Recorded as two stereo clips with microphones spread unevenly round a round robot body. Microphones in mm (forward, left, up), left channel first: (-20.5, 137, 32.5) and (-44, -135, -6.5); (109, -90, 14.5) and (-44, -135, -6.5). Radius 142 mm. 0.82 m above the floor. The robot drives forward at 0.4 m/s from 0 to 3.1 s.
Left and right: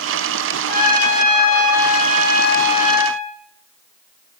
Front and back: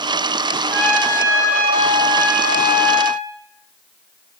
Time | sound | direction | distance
0.7 | a trumpet | 115° left | 6 m